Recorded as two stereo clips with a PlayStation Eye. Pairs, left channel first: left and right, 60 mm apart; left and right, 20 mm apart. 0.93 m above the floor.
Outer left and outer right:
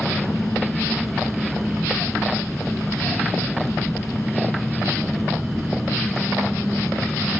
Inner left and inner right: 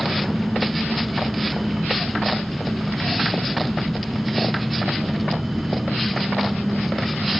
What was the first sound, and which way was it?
An engine running, 10° left (ahead or behind).